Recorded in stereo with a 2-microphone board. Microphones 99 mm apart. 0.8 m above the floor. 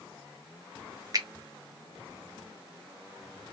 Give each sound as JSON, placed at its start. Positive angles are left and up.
{"t": 1.1, "sound": "a finger snap", "side_deg": -40, "distance_m": 0.9}